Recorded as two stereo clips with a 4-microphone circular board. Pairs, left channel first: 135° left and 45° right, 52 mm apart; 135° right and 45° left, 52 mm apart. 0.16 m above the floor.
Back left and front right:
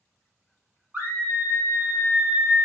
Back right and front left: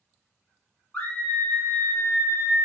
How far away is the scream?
About 1.6 m.